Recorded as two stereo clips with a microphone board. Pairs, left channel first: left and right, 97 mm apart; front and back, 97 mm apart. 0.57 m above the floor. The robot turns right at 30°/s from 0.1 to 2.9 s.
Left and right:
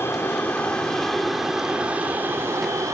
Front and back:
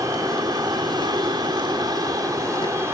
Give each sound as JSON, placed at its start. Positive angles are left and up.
{"t": 0.0, "sound": "an aircraft", "azimuth_deg": 145}